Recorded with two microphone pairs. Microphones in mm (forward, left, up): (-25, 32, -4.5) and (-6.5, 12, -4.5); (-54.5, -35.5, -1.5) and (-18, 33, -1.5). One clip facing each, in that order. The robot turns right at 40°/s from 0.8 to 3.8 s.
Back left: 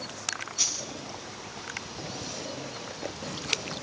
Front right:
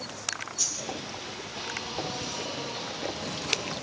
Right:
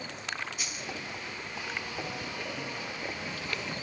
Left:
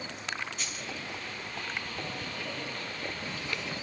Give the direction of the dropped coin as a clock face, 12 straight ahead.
7 o'clock.